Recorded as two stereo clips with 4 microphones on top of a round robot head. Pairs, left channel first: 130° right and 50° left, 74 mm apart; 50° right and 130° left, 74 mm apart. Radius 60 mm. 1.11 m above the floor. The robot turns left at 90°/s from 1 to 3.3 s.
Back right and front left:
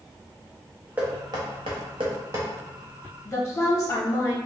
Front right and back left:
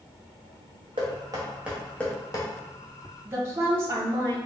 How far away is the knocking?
About 0.7 m.